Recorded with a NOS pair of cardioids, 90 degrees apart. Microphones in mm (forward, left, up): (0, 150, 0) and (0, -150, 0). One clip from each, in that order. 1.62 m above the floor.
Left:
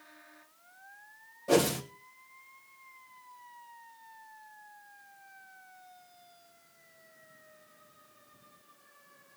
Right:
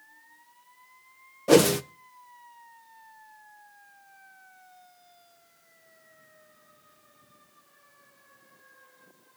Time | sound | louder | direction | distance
1.5 | a whoosh | right 7 dB | 45° right | 1.3 m